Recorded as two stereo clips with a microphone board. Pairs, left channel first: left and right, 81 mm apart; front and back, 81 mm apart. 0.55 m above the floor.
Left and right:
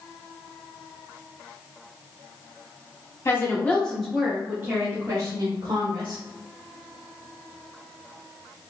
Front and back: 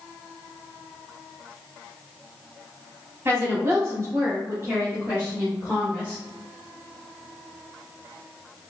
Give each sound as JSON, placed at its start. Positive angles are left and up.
{"t": 3.2, "sound": "a woman speaking", "azimuth_deg": 135, "distance_m": 1.0}